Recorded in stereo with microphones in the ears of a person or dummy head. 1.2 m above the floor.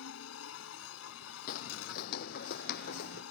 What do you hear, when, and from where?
0.0 s a machine running: 85° left
1.5 s footsteps: 45° left (ahead or behind); by 3.2 s 55° left (ahead or behind)